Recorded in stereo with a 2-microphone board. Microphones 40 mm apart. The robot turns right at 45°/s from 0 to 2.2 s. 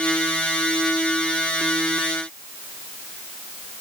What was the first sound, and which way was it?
Only background noise.